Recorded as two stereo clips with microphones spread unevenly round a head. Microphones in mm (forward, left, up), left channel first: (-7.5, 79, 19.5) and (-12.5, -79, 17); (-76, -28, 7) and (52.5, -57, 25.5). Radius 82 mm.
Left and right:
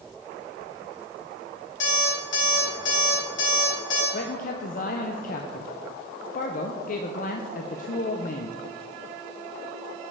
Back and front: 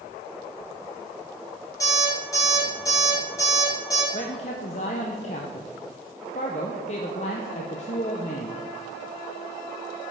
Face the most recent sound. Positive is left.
turn(degrees=125)